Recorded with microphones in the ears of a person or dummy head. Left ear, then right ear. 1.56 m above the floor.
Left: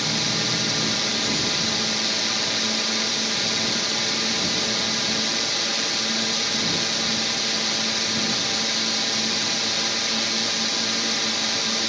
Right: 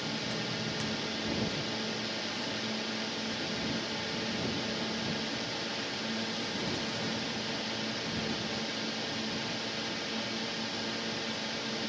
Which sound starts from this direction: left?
A drone, at 0.0 s.